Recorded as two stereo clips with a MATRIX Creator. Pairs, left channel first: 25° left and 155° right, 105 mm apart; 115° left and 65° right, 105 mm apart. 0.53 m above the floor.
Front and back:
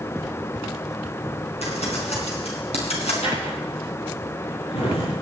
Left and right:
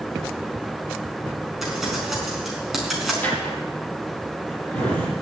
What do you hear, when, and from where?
1.6 s crumpling: 20° left, 4 m
3.2 s a drawer: 35° left, 6.5 m